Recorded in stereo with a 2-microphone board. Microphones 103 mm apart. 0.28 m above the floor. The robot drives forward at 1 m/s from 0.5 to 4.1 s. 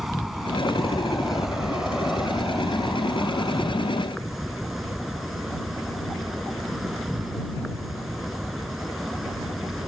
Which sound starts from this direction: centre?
An insect, at 0.0 s.